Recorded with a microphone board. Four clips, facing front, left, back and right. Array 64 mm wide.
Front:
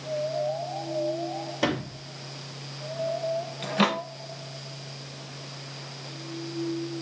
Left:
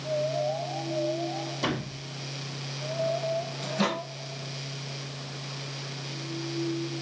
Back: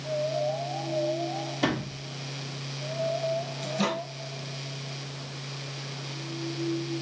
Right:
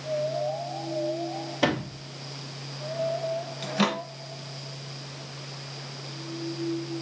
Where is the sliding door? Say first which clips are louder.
Right 7 dB, front 1 dB; 60° right, 2.0 m.